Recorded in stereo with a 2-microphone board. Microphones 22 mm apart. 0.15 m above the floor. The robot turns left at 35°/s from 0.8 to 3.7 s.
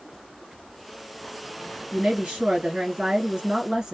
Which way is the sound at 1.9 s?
70° right.